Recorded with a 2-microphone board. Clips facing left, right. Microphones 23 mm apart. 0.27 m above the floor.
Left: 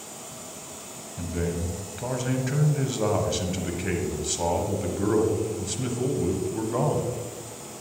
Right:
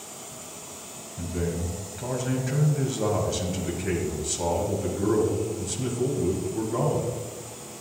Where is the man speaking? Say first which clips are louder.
Even; 20° left (ahead or behind), 1.2 m.